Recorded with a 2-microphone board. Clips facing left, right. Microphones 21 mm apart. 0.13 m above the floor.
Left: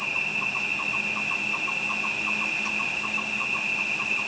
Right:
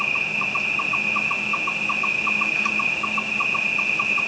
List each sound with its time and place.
0.0 s an insect: 30° right (ahead or behind), 0.8 m